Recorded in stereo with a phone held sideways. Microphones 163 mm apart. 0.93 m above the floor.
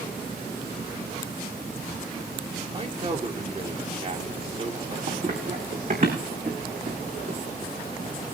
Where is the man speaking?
40° right (ahead or behind), 2.5 m.